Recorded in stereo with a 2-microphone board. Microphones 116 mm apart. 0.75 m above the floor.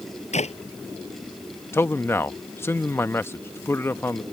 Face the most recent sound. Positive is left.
turn(degrees=20)  # may be behind; listen again after turning